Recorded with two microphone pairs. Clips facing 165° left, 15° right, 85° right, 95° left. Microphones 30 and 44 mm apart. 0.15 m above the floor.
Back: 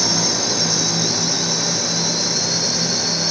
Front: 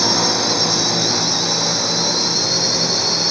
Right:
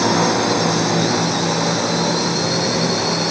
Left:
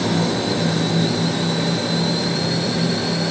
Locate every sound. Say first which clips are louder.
0.0 s a drone: front 3 dB, right 4 dB; 80° right